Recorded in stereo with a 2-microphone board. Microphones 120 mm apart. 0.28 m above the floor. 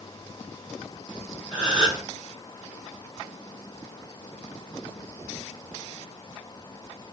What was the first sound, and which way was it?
A gasp, 40° left (ahead or behind).